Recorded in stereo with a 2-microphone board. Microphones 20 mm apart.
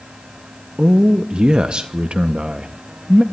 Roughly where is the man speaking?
Right.